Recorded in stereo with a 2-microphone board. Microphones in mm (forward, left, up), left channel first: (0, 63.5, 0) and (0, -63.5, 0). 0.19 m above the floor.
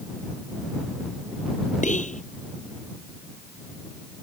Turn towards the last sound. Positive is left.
turn(degrees=75)  # may be behind; listen again after turning